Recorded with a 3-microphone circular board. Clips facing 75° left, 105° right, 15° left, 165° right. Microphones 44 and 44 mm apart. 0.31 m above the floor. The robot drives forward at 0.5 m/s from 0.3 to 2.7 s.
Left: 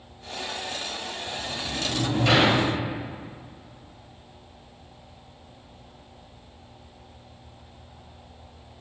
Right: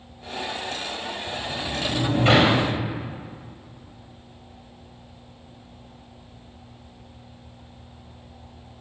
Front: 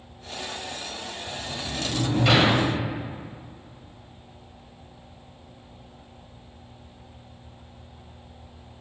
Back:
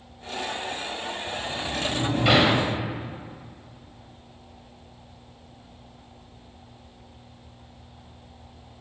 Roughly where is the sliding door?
Right.